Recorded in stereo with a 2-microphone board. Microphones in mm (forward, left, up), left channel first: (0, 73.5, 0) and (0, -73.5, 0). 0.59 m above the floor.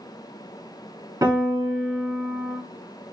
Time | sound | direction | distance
1.2 | a piano | 25° right (ahead or behind) | 1.1 m